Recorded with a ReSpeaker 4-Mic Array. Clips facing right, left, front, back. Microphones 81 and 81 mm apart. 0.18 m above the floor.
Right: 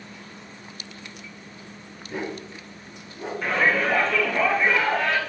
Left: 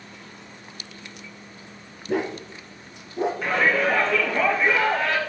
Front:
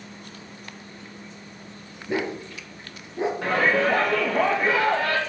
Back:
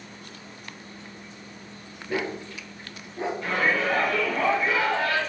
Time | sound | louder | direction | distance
2.1 | a dog barking | left 6 dB, front 2 dB | 70° left | 1.5 m
3.4 | a shout | right 1 dB, front 3 dB | straight ahead | 3 m